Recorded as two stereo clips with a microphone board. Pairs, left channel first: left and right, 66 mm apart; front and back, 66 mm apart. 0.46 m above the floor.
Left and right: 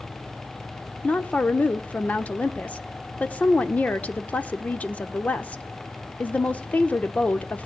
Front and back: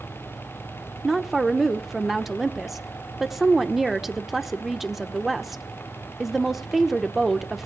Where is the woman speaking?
100° left, 0.9 m.